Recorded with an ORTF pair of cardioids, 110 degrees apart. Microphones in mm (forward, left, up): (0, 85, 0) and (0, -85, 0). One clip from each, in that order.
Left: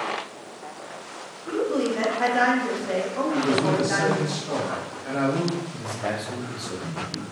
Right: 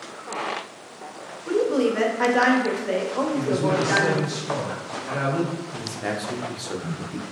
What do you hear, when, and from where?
1.5 s a woman speaking: 20° right, 0.8 m
3.3 s a man speaking: 45° left, 1.5 m
5.7 s a man speaking: 10° right, 0.6 m